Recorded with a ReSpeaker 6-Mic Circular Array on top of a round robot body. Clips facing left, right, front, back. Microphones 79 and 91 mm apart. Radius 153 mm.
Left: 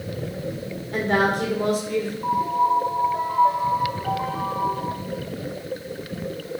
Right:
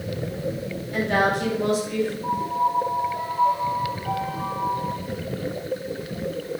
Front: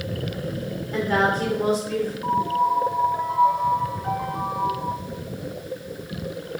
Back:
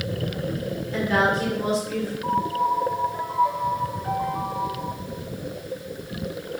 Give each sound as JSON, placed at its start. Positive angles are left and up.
{"t": 0.9, "sound": "a woman speaking", "azimuth_deg": 45, "distance_m": 3.5}
{"t": 2.2, "sound": "a piano", "azimuth_deg": 55, "distance_m": 1.4}